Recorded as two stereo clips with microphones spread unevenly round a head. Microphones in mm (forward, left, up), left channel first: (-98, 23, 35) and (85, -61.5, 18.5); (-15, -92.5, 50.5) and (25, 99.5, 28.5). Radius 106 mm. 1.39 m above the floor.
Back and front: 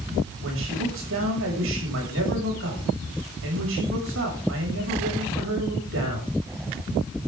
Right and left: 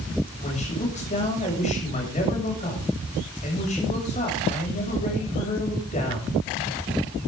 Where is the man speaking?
45° right, 7 m.